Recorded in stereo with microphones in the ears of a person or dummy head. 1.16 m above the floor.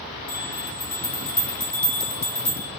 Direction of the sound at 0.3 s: 15° left (ahead or behind).